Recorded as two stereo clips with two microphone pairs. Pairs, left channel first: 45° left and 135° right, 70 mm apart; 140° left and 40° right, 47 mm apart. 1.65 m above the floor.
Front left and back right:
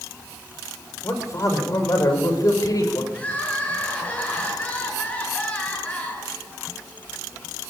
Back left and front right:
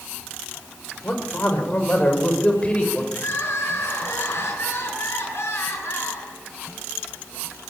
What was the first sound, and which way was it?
A man speaking, 90° left.